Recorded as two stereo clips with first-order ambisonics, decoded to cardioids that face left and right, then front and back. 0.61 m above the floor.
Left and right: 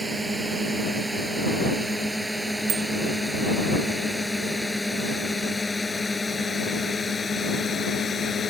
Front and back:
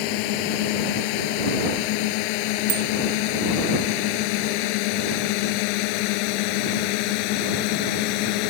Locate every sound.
0.0 s a drone: 10° right; by 8.5 s 20° left
2.7 s a bicycle bell: 150° right